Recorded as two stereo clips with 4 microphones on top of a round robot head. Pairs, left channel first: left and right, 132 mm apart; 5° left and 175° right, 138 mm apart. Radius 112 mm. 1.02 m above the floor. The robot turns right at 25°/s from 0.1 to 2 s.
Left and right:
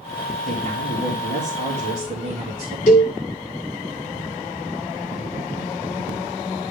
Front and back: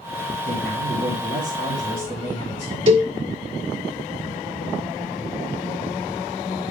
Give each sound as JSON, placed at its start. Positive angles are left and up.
{"t": 0.5, "sound": "a man speaking", "azimuth_deg": -135, "distance_m": 3.0}
{"t": 2.9, "sound": "a cowbell", "azimuth_deg": 140, "distance_m": 1.6}